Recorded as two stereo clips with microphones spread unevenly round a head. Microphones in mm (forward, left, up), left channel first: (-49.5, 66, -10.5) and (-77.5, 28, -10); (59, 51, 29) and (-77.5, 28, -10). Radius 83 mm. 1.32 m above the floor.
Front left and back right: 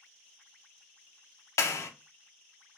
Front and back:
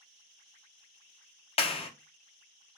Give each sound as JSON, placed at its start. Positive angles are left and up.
{"t": 1.6, "sound": "a clap", "azimuth_deg": 55, "distance_m": 0.8}